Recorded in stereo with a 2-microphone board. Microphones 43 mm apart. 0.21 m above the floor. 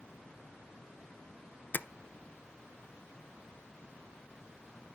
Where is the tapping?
50° left (ahead or behind), 0.5 m.